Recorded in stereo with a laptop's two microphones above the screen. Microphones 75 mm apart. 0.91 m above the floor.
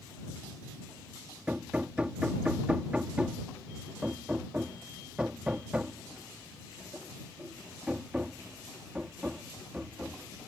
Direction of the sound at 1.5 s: 15° right (ahead or behind).